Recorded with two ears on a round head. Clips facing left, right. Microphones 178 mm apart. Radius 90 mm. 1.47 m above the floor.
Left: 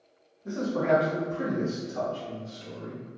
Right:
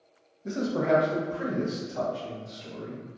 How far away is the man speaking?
About 0.5 m.